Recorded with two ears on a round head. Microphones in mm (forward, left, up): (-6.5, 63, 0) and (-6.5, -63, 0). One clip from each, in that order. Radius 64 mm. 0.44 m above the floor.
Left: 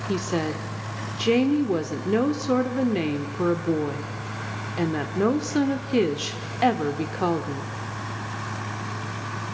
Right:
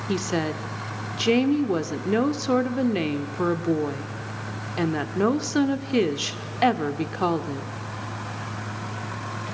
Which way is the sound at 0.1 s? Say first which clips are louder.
Right 1 dB; 15° right (ahead or behind).